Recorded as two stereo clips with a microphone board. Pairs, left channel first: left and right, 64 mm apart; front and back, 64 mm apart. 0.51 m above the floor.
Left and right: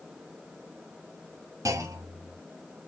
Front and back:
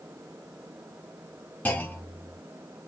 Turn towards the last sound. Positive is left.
turn(degrees=-60)